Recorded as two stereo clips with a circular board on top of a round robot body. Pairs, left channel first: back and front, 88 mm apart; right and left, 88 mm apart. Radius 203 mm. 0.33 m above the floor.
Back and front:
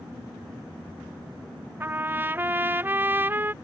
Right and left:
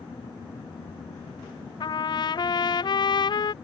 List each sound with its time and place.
1.8 s a trumpet: 65° right